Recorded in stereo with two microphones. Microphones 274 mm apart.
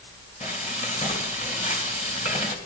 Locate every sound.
0.4 s frying: 25° left (ahead or behind), 3 m